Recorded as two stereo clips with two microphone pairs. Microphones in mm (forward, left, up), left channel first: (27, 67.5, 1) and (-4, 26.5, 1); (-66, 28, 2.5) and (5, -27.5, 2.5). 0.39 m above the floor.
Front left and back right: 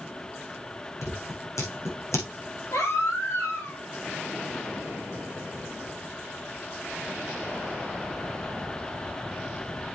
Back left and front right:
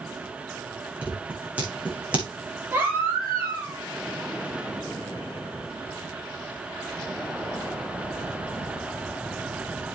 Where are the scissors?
35° left, 6 m.